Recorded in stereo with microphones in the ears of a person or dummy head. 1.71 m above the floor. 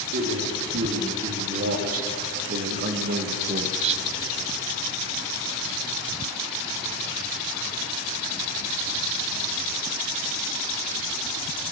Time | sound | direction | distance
0.1 | a man speaking | 55° right (ahead or behind) | 5 m